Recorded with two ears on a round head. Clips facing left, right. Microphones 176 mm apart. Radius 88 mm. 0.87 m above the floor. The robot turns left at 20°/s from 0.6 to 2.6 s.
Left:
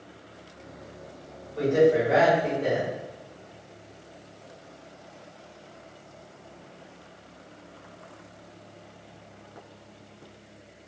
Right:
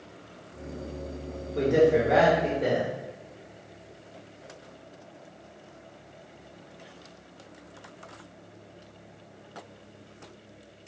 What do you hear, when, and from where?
1.6 s a man speaking: 70° right (ahead or behind), 1.1 m; by 2.9 s 50° right (ahead or behind), 1.1 m